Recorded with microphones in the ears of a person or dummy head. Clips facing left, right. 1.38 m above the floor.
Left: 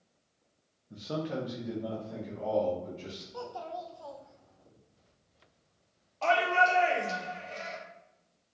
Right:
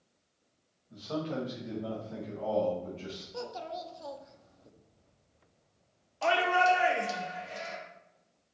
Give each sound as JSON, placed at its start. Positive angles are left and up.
{"t": 0.9, "sound": "a man speaking", "side_deg": 35, "distance_m": 0.8}
{"t": 3.3, "sound": "a child speaking", "side_deg": -30, "distance_m": 0.6}
{"t": 6.2, "sound": "a shout", "side_deg": -15, "distance_m": 1.1}